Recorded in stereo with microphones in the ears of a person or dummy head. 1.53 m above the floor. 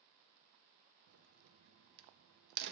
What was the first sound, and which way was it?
A crack, 65° right (ahead or behind).